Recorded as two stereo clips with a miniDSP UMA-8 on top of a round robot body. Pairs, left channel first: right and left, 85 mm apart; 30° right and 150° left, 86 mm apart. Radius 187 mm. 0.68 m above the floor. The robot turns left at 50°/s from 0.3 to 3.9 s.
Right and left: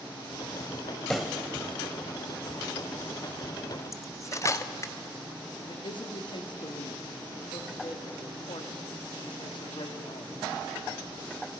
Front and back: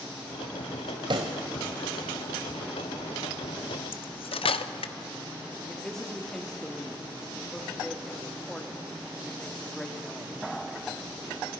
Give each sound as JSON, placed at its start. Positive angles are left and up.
{"t": 1.1, "sound": "a pop", "azimuth_deg": -175, "distance_m": 0.6}
{"t": 3.9, "sound": "cutlery clinking", "azimuth_deg": -35, "distance_m": 0.8}
{"t": 5.7, "sound": "a man speaking", "azimuth_deg": -115, "distance_m": 1.9}